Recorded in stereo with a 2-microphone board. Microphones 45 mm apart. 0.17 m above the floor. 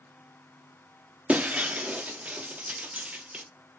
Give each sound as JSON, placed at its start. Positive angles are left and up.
{"t": 1.3, "sound": "breaking glass", "side_deg": -30, "distance_m": 0.5}